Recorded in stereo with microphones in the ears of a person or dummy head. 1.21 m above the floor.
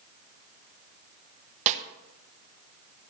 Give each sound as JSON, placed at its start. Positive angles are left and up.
{"t": 1.7, "sound": "a snare drum", "side_deg": -40, "distance_m": 1.2}